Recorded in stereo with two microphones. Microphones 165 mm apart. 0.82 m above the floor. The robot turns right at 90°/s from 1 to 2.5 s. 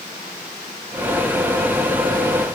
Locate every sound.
Only background noise.